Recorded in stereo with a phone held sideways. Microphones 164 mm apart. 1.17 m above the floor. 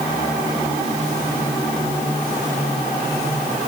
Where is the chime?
No chime in this recording.